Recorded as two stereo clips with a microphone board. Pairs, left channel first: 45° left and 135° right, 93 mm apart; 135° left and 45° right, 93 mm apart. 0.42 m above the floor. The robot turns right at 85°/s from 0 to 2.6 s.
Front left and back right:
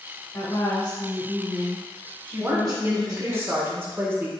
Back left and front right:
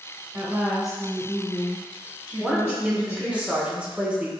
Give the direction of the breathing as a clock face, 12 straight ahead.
No breathing in this recording.